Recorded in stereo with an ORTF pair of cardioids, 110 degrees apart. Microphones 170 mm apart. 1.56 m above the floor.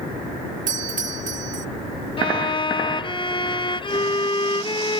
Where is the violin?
30° left.